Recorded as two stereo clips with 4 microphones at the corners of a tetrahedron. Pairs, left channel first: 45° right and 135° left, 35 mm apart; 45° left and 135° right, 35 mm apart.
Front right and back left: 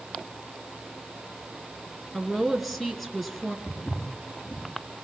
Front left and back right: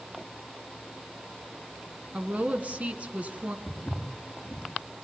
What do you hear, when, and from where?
2.1 s a woman speaking: 135° right, 1.9 m
3.7 s footsteps: 15° right, 5.5 m